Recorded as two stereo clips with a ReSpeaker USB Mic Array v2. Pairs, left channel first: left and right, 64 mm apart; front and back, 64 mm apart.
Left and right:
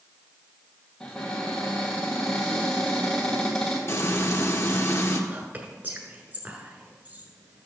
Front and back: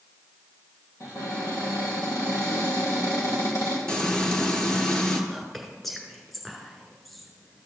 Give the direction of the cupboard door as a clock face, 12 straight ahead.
12 o'clock.